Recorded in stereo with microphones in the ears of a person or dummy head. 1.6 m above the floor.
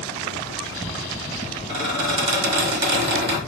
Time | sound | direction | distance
1.7 | a squeak | 35° right (ahead or behind) | 1.5 m